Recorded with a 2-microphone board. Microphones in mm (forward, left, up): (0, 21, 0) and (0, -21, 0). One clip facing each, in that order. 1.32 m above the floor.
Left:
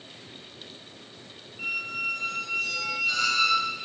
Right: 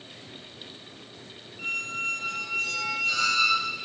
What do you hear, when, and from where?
1.6 s a squeak: 5° left (ahead or behind), 1.2 m